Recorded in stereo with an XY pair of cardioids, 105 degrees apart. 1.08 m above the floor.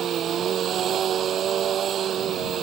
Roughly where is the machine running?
Ahead right.